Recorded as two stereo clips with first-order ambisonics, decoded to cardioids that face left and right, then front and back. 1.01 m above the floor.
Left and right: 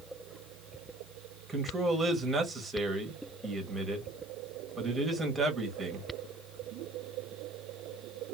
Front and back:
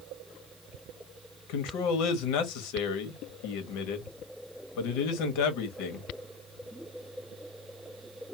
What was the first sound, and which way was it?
A man speaking, 5° right.